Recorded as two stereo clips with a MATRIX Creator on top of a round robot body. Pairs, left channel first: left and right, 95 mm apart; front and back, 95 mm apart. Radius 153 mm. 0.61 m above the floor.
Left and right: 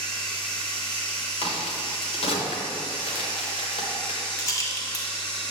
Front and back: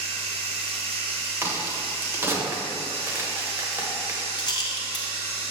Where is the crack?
115° left, 1.2 m.